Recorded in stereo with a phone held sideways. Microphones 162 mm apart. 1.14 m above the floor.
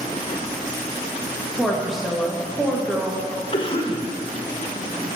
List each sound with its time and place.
1.6 s a woman speaking: centre (ahead or behind), 1.1 m
3.5 s a cough: 35° left (ahead or behind), 1.0 m